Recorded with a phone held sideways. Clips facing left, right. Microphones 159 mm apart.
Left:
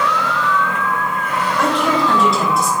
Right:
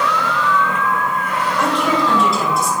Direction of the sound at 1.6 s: Centre (ahead or behind).